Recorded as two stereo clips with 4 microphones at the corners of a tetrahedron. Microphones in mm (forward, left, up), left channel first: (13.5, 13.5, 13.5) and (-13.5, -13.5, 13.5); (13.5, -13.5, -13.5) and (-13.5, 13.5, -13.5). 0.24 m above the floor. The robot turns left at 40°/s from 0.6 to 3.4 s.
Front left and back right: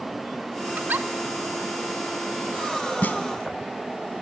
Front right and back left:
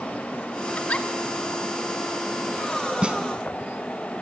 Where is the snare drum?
80° left, 1.8 m; by 3.2 s 70° left, 1.8 m.